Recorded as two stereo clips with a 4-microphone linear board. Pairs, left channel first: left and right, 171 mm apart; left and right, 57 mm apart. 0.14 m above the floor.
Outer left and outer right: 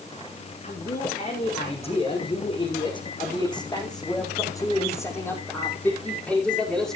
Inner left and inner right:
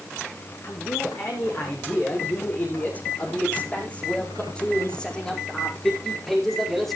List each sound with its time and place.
0.6 s a man speaking: 40° left (ahead or behind), 6.5 m; by 7.0 s 5° left (ahead or behind), 5.5 m